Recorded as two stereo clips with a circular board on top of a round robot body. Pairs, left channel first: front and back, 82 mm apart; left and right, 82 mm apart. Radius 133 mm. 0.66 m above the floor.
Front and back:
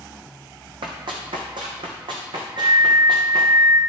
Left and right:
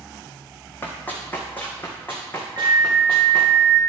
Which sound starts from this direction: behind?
Running footsteps, at 0.8 s.